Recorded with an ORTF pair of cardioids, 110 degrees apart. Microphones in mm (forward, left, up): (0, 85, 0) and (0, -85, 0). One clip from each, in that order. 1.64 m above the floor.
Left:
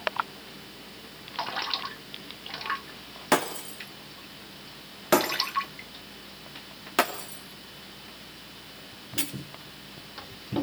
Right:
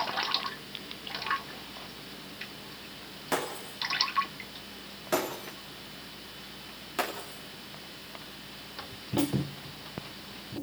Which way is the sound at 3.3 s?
55° left.